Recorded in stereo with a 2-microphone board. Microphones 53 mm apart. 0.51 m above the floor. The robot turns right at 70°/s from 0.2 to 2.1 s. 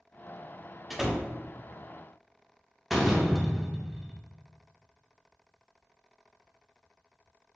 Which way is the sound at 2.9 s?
5° right (ahead or behind).